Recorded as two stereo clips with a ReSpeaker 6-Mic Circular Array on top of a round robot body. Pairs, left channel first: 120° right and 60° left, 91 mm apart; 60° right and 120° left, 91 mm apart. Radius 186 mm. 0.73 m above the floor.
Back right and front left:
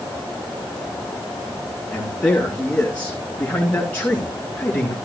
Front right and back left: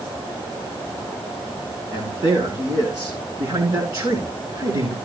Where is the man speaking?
160° left, 9 m; by 5.0 s 170° left, 10.5 m.